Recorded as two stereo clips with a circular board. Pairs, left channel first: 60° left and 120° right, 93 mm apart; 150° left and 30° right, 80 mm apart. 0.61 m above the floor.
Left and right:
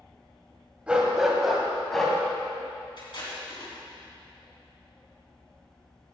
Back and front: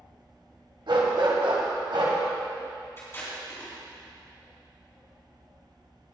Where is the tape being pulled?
90° left, 3 m.